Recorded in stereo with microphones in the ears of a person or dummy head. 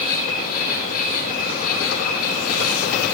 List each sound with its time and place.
0.0 s an insect: 50° left (ahead or behind), 5.5 m